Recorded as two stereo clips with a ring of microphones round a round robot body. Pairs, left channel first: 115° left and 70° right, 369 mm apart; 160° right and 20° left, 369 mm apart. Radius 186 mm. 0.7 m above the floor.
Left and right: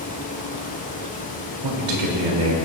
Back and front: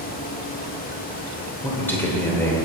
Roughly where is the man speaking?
Right.